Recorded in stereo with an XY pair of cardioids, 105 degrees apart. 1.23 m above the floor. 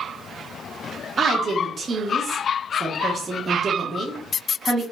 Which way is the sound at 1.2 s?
35° right.